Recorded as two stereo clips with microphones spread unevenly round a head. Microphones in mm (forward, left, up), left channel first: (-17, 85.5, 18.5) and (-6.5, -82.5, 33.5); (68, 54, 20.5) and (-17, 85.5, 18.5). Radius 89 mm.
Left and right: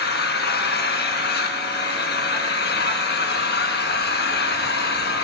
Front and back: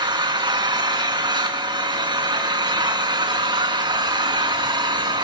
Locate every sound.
0.0 s an engine running: 125° left, 3 m